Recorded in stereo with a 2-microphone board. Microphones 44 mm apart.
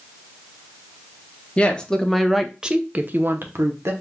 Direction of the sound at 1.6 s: 25° left (ahead or behind).